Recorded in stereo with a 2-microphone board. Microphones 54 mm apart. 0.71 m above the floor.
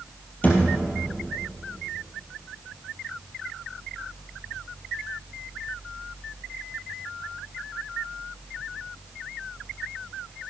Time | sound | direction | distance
0.4 | a thud | 30° left (ahead or behind) | 3 m